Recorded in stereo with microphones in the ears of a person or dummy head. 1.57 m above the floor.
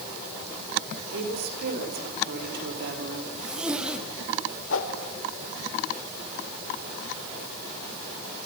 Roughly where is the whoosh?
Left.